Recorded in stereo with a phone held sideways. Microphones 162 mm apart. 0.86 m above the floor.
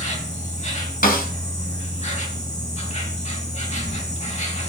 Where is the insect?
45° left (ahead or behind), 3 m.